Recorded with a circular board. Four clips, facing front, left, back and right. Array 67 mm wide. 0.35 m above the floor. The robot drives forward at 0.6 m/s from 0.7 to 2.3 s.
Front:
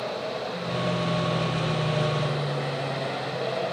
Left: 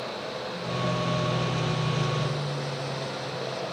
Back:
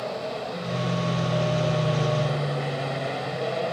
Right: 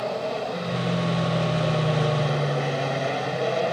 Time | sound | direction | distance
0.0 | an aircraft | 90° right | ?